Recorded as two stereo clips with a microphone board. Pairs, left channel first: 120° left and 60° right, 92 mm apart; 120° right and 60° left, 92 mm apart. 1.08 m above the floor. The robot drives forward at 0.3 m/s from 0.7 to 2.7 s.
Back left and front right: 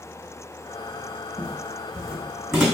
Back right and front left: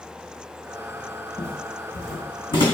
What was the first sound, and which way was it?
Footsteps, 160° right.